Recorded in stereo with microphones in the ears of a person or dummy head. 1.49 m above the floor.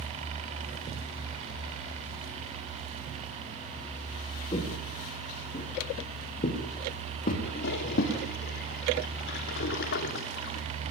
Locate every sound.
4.5 s footsteps: 30° left (ahead or behind), 6 m; by 8.1 s 60° left (ahead or behind), 6 m
7.4 s a toilet flushing: 65° left (ahead or behind), 3 m